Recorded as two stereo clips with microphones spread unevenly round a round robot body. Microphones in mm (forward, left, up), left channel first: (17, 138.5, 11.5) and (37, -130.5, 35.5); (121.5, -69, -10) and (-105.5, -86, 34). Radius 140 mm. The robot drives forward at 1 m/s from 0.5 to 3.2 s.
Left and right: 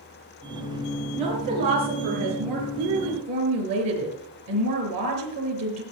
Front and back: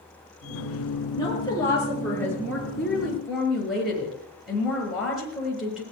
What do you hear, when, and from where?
1.1 s a woman speaking: 70° right, 7 m; by 5.8 s 85° right, 6.5 m